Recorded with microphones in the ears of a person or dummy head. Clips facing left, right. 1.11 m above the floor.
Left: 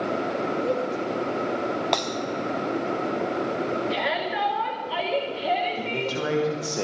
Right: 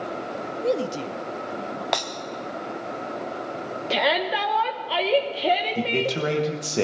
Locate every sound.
0.6 s a man speaking: 15° right (ahead or behind), 0.7 m; by 1.8 s 65° right (ahead or behind), 1.7 m
1.9 s breaking glass: 5° right (ahead or behind), 0.7 m
3.9 s a shout: 60° right (ahead or behind), 1.9 m
5.8 s a man speaking: 30° right (ahead or behind), 1.3 m